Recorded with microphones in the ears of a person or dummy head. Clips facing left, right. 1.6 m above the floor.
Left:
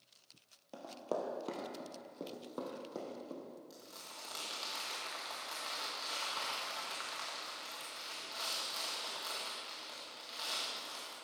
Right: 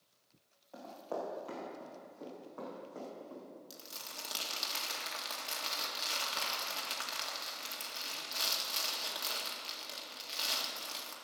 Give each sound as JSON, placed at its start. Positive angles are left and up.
{"t": 0.7, "sound": "running footsteps", "side_deg": 50, "distance_m": 2.5}
{"t": 3.7, "sound": "crumpling", "side_deg": -40, "distance_m": 1.7}